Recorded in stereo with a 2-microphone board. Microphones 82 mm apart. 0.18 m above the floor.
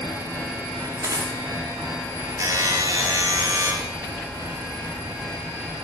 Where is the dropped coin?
40° right (ahead or behind), 5.5 m.